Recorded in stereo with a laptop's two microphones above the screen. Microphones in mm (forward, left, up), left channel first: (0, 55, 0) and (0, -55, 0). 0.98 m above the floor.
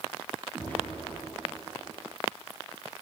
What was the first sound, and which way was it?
An explosion, 15° left (ahead or behind).